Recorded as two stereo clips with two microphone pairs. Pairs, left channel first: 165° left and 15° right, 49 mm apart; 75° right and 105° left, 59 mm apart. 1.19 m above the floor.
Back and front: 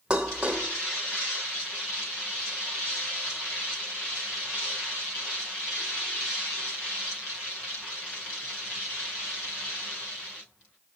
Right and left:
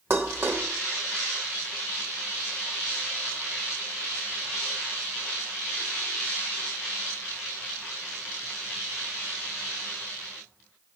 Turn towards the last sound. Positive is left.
turn(degrees=55)